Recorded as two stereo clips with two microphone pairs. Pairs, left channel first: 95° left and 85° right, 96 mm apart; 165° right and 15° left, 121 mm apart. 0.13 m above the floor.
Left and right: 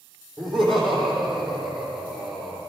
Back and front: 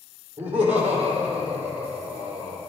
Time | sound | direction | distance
0.4 | laughter | 5° left | 5.5 m